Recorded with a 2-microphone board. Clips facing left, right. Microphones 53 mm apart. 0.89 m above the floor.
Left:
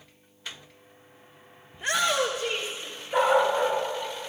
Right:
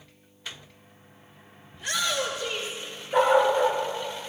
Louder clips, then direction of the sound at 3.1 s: Right 2 dB; centre (ahead or behind).